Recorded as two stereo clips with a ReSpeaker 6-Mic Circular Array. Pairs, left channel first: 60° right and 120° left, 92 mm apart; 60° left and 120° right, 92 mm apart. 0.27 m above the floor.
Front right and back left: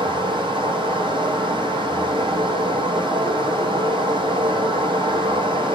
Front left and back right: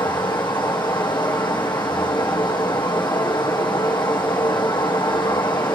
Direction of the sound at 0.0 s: 95° left.